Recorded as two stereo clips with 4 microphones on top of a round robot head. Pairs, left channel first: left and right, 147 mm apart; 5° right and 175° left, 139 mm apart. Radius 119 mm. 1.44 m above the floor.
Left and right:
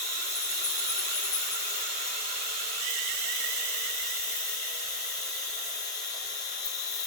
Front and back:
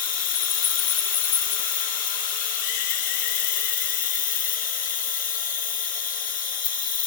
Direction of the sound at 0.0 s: 20° left.